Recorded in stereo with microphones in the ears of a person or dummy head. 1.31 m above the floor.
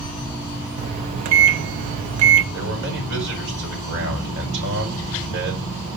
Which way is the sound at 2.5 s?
65° right (ahead or behind).